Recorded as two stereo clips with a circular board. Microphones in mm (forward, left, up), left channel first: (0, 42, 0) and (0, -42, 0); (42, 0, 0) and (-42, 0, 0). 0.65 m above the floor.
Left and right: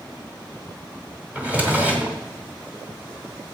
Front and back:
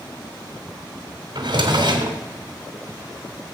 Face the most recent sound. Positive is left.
turn(degrees=-160)